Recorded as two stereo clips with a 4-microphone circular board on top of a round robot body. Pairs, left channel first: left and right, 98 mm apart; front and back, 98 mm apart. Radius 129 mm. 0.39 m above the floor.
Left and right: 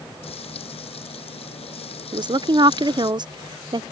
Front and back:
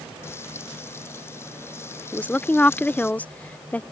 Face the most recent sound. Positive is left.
turn(degrees=-70)